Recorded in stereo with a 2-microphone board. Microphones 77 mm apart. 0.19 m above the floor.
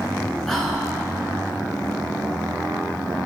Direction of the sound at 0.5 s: 5° left (ahead or behind).